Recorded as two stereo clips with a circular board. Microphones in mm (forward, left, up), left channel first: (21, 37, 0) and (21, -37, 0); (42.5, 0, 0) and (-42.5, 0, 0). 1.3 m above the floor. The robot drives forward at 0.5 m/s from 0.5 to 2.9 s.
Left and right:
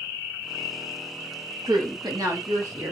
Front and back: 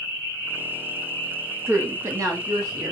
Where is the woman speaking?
120° right, 1.1 m; by 2.9 s 140° right, 1.5 m.